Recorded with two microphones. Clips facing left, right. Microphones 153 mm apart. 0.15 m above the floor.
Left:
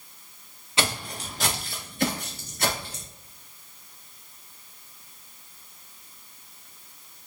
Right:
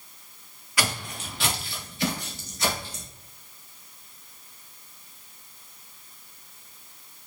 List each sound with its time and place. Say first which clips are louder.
0.8 s footsteps: left 2 dB; 25° left (ahead or behind), 1.2 m; by 3.0 s 60° left (ahead or behind), 3 m